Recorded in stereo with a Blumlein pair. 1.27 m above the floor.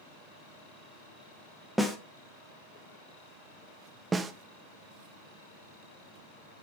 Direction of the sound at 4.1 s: 15° right.